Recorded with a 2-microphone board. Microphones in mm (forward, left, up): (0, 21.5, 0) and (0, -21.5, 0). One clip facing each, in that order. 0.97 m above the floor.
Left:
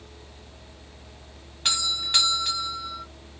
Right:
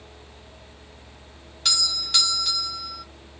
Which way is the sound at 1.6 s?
30° left (ahead or behind).